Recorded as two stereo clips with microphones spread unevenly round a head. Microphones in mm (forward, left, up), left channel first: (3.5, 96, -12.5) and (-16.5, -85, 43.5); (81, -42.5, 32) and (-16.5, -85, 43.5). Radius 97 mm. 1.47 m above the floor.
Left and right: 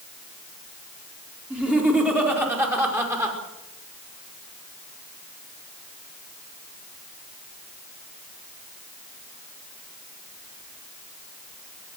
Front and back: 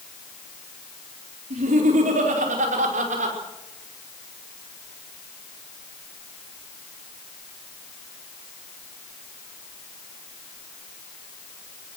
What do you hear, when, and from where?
1.5 s laughter: straight behind, 4.5 m; by 3.4 s 170° right, 6 m